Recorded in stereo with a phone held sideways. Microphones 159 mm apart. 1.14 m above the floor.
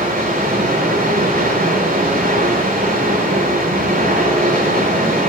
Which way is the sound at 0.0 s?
75° right (ahead or behind).